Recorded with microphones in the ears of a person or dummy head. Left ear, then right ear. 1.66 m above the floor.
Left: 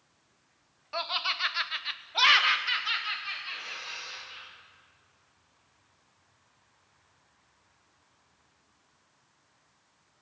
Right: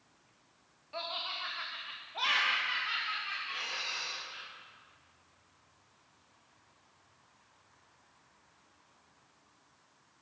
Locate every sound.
0.9 s laughter: 40° left (ahead or behind), 0.7 m; by 4.5 s 25° left (ahead or behind), 1.5 m
3.5 s breathing: 15° right (ahead or behind), 2.5 m